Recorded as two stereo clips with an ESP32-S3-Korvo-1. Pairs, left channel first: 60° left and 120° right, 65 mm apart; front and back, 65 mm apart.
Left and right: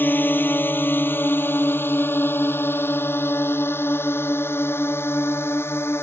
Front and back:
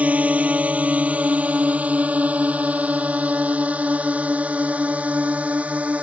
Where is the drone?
115° left; by 6.0 s 110° left.